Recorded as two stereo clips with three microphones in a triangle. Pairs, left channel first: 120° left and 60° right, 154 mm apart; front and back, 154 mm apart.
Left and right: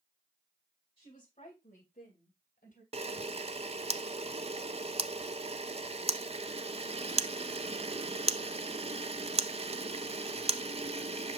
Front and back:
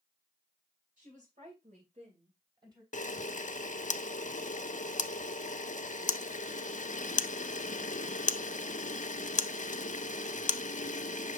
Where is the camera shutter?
20° right, 0.5 m.